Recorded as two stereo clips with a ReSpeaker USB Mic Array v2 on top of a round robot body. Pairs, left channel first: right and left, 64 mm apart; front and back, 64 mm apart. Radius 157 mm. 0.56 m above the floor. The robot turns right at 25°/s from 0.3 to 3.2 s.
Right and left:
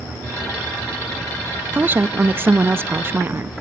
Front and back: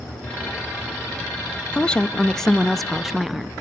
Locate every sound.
1.7 s a woman speaking: 60° left, 0.8 m; by 3.5 s 95° left, 0.8 m